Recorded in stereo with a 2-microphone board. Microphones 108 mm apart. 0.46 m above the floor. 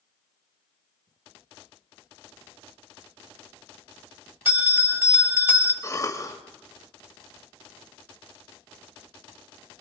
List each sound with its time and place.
4.5 s a bell: 20° right (ahead or behind), 1.4 m
5.8 s a cough: 30° left (ahead or behind), 1.8 m